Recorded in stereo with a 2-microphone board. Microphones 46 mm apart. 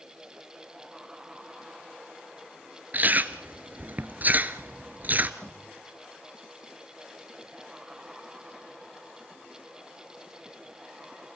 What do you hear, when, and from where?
2.9 s chewing: 40° right (ahead or behind), 1.2 m
5.4 s knocking: 15° left (ahead or behind), 4.5 m